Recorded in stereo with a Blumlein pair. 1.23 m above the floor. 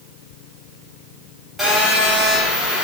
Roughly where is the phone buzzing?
Ahead.